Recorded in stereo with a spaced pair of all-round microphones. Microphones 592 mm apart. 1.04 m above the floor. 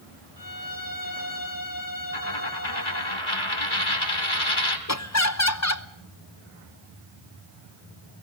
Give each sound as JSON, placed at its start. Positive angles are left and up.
{"t": 0.4, "sound": "a violin", "side_deg": 35, "distance_m": 2.5}
{"t": 2.1, "sound": "a dropped coin", "side_deg": 50, "distance_m": 2.0}
{"t": 4.9, "sound": "laughter", "side_deg": 25, "distance_m": 1.0}